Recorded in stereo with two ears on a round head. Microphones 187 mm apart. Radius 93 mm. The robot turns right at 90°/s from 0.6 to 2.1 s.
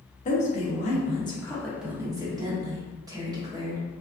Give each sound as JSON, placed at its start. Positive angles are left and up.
{"t": 0.2, "sound": "a woman speaking", "azimuth_deg": 80, "distance_m": 0.8}